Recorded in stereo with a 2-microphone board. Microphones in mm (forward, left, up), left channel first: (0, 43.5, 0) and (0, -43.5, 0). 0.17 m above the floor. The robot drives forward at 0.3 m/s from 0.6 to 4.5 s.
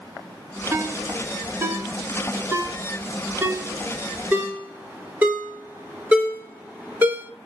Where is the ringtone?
35° right (ahead or behind), 1.2 m; by 7.3 s 20° right (ahead or behind), 1.9 m.